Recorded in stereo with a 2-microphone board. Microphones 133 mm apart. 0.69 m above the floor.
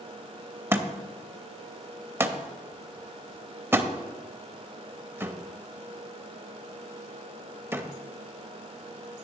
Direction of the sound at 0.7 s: 15° right (ahead or behind).